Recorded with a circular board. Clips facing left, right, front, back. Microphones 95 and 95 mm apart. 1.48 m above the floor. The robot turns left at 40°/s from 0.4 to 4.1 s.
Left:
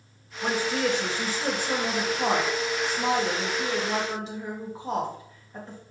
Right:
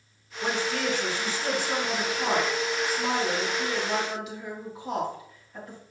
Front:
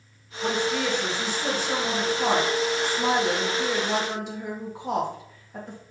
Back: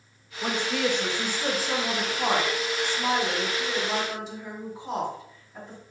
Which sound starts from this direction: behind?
A woman speaking, at 0.4 s.